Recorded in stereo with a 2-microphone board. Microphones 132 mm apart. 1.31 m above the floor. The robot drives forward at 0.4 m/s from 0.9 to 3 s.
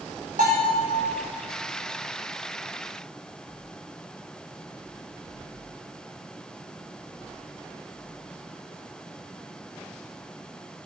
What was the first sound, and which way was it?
A bell, 75° right (ahead or behind).